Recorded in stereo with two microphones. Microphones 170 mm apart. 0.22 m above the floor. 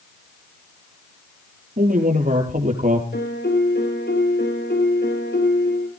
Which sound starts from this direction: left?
A piano, at 3.1 s.